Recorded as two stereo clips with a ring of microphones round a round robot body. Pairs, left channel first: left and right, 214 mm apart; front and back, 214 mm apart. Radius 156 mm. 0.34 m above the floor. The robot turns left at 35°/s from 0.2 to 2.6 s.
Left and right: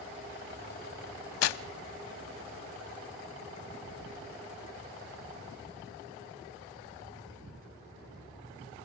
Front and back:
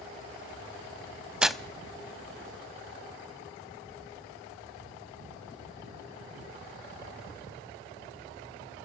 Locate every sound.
1.4 s tearing paper: 95° left, 0.6 m; by 1.6 s 85° left, 0.6 m